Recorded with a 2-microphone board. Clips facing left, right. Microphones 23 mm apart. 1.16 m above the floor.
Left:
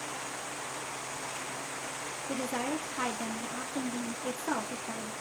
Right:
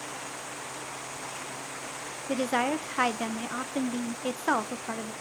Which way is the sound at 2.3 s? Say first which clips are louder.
Right 7 dB; 65° right (ahead or behind).